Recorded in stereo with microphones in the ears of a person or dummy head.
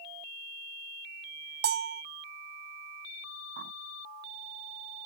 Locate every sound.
1.6 s a bell: 55° right (ahead or behind)
3.6 s a bird: 60° right (ahead or behind)